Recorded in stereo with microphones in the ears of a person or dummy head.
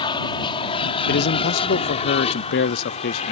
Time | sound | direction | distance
0.0 | an aircraft | 25° left (ahead or behind) | ?
1.1 | a man speaking | 50° left (ahead or behind) | ?